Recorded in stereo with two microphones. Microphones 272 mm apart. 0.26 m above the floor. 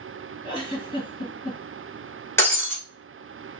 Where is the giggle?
40° left (ahead or behind), 1.6 m.